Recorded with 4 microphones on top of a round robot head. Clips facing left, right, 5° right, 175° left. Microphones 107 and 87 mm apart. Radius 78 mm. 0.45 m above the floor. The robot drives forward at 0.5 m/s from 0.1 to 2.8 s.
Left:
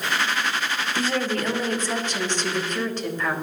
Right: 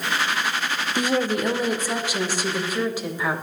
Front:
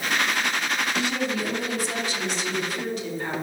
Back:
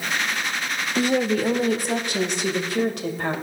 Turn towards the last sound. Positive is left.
turn(degrees=-170)